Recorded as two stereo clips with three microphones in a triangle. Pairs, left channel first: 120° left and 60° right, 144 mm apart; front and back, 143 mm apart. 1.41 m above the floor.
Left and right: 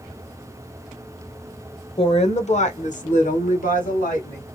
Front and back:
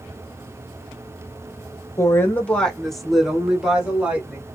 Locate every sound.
2.0 s a woman speaking: 70° left, 0.9 m; by 4.4 s 100° left, 2.5 m